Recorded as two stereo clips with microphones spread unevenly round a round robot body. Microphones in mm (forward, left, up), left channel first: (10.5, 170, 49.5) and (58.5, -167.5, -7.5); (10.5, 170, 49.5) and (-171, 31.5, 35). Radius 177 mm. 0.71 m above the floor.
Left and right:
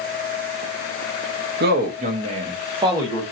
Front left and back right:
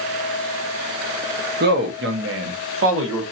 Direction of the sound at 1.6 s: 120° right.